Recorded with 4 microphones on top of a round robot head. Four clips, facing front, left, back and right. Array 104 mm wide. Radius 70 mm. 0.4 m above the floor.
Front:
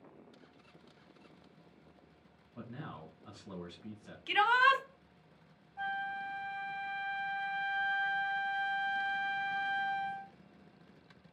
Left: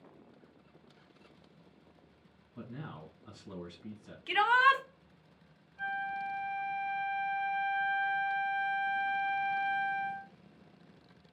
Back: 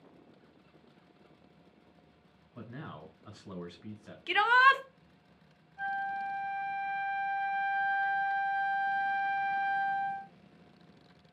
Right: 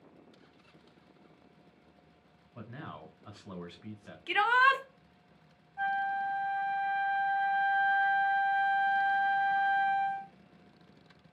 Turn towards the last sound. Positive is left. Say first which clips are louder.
# right 5 dB, back 4 dB
turn(degrees=-60)